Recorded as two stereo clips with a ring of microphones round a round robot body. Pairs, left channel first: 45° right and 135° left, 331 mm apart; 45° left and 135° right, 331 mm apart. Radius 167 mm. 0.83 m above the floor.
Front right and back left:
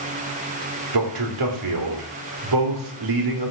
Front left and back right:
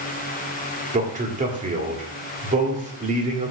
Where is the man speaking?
155° left, 2 m.